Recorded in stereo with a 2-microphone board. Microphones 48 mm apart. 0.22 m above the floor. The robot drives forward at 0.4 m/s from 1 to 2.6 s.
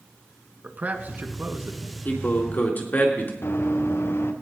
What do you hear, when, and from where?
0.6 s a man speaking: 40° right (ahead or behind), 1.9 m; by 1.9 s 45° right (ahead or behind), 1.7 m
2.0 s a man speaking: 45° left (ahead or behind), 3 m; by 3.3 s 40° left (ahead or behind), 3 m
3.4 s running footsteps: 60° left (ahead or behind), 1.7 m